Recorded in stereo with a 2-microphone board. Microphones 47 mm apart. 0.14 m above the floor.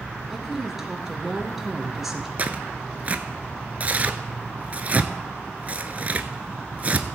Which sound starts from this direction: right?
Tearing paper, at 2.4 s.